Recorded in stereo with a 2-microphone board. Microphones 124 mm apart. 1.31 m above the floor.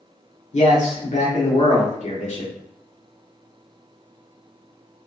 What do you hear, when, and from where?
0.5 s a man speaking: 70° left (ahead or behind), 1.0 m